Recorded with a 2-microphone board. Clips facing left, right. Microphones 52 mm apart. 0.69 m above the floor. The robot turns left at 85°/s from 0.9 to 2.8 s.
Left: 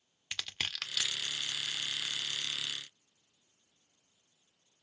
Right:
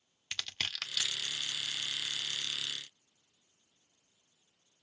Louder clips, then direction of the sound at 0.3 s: Even; 5° left (ahead or behind).